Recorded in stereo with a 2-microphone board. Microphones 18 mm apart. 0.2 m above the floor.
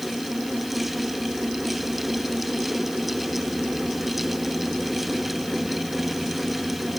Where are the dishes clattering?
No dishes clattering in this recording.